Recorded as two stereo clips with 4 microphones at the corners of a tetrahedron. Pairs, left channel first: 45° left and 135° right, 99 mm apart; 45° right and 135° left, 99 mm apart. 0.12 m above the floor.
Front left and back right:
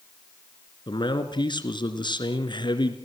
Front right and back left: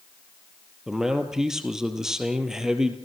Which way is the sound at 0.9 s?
50° left.